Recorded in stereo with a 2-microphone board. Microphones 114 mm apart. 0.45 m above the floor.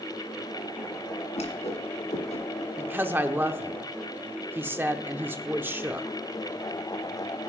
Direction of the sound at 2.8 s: 20° right (ahead or behind).